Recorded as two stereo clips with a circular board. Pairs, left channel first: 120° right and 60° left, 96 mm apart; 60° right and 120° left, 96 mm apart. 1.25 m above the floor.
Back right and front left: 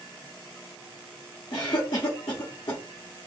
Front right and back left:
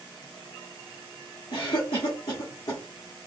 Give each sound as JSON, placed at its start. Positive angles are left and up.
{"t": 1.5, "sound": "a cough", "azimuth_deg": -85, "distance_m": 1.0}